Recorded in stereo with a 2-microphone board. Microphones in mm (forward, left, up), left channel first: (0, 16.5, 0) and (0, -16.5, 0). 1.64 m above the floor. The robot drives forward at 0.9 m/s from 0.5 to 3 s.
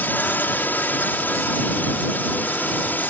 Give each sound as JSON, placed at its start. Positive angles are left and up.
{"t": 0.0, "sound": "a drone", "side_deg": 75}